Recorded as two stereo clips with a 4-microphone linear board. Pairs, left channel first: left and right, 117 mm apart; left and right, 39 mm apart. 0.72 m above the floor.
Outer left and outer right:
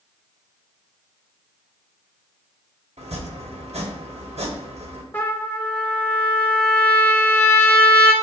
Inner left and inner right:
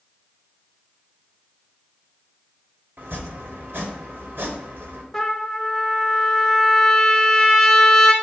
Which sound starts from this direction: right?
Chopping, at 3.0 s.